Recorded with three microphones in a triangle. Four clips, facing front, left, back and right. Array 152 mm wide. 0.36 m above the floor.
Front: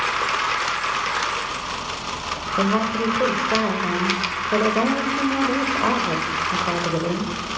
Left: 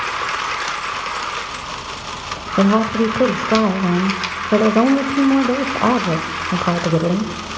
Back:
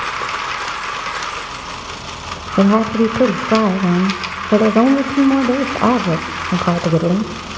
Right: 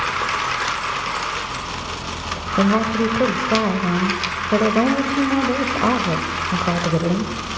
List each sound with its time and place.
2.6 s a woman speaking: 160° left, 1.3 m